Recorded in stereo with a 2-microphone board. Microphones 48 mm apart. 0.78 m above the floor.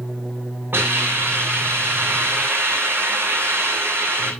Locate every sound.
0.7 s a hiss: 50° right (ahead or behind), 8 m